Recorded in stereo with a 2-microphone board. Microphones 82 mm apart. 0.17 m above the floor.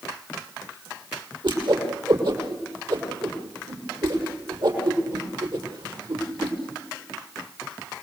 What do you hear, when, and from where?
1.4 s a whoosh: 70° right (ahead or behind), 6 m